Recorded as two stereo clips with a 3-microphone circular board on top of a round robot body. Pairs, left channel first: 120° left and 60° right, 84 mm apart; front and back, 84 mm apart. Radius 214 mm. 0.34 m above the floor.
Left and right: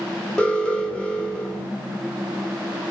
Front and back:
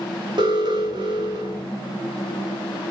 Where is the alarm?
160° right, 4 m.